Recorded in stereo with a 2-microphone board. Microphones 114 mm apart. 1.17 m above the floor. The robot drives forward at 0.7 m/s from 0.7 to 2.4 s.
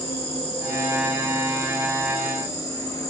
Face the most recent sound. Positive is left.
turn(degrees=30)  # may be behind; listen again after turning